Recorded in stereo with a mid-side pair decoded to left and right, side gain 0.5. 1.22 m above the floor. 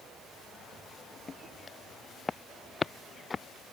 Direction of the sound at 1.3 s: 30° left.